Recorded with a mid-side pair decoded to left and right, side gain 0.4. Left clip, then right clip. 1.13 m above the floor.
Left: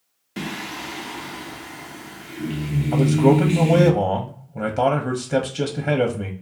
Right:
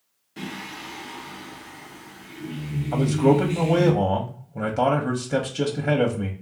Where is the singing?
70° left, 0.5 m.